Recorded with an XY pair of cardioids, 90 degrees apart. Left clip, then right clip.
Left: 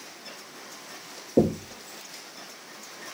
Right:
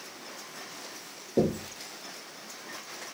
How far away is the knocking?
About 0.6 m.